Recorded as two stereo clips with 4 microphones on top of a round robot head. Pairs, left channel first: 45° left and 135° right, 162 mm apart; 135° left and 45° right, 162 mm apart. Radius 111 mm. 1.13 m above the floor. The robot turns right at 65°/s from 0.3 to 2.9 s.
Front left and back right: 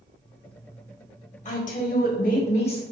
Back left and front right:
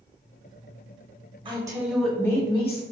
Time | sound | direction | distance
1.4 | a woman speaking | 10° left | 1.1 m